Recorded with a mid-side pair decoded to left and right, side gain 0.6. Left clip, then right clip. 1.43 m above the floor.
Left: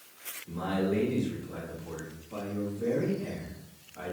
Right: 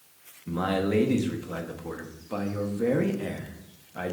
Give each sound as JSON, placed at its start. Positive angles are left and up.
{"t": 0.5, "sound": "a man speaking", "azimuth_deg": -65, "distance_m": 0.8}